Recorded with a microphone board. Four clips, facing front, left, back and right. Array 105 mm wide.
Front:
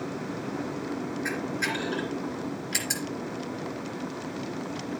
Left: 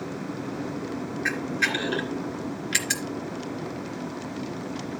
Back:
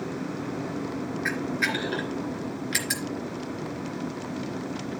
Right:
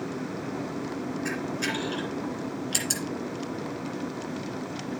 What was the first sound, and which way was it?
A camera shutter, 120° left.